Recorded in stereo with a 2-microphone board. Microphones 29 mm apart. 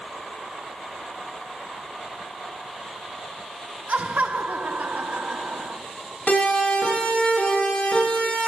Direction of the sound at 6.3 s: 60° left (ahead or behind).